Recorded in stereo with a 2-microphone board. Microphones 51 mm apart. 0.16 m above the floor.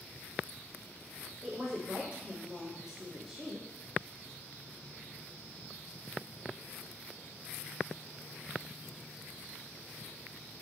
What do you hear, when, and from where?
1.4 s a woman speaking: 20° right (ahead or behind), 5 m; by 3.7 s 5° right (ahead or behind), 6 m